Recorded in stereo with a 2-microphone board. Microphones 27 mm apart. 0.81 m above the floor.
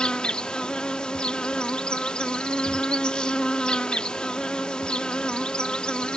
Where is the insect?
40° left (ahead or behind).